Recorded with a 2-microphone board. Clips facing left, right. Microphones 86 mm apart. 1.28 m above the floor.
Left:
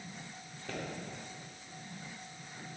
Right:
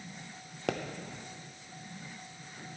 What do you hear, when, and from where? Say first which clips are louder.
0.7 s a pop: right 8 dB; 85° right, 0.9 m